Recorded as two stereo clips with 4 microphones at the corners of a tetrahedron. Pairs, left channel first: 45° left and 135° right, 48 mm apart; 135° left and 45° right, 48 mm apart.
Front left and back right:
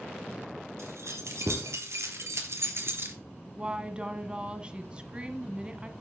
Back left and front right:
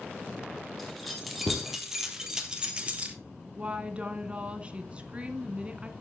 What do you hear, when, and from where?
0.8 s keys jangling: 140° right, 3.5 m; by 3.2 s 105° right, 2 m
3.5 s a woman speaking: 85° right, 1.5 m